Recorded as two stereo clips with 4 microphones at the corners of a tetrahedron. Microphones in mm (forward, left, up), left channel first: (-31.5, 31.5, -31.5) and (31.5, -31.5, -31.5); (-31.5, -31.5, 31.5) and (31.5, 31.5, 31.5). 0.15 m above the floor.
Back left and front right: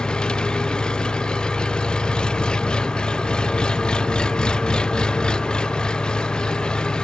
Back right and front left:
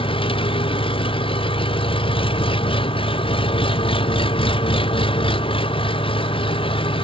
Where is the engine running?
145° right.